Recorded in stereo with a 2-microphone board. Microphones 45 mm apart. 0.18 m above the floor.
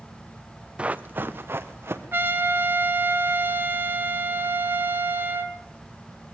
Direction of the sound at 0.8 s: 25° right (ahead or behind).